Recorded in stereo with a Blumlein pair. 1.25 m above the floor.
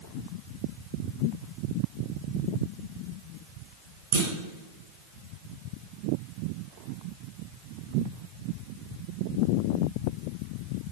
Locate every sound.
4.1 s a clunk: 65° right, 3.5 m